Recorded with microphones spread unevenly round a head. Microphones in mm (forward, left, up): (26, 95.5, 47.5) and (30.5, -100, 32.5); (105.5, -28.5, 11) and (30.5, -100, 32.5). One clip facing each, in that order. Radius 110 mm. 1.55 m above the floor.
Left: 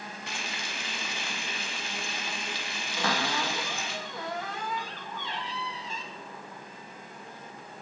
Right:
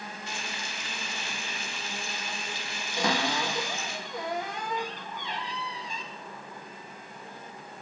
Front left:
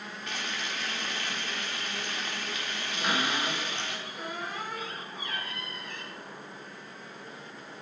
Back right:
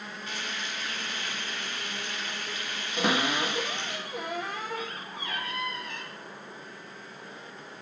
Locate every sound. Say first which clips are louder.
0.3 s frying: even, front left 2 dB; 95° left, 1.5 m
3.0 s a cupboard door: right 2 dB, back right 4 dB; 165° right, 1.8 m